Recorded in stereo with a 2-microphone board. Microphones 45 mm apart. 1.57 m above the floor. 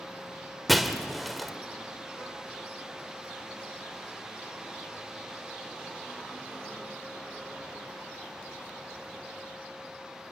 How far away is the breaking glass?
About 1.6 m.